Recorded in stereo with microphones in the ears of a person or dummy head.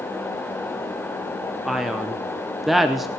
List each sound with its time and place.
1.6 s a man speaking: 5° right (ahead or behind), 0.7 m